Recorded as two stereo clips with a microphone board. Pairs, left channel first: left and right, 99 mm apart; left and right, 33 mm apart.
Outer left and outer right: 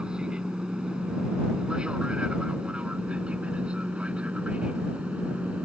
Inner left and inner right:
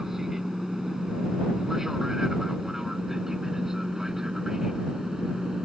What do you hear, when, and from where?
0.0 s an aircraft: 10° right (ahead or behind); by 5.7 s 15° right (ahead or behind)